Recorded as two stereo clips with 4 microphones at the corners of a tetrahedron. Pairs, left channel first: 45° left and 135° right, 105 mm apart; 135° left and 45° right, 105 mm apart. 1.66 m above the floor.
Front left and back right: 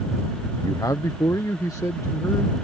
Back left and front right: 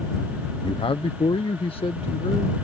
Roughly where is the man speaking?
Left.